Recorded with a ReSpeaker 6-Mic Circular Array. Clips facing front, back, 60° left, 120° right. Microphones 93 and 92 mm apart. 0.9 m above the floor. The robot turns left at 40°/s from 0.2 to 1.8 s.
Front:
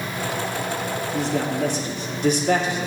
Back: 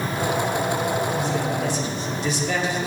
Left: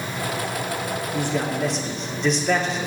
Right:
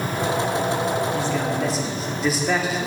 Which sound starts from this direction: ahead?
A man speaking, at 1.1 s.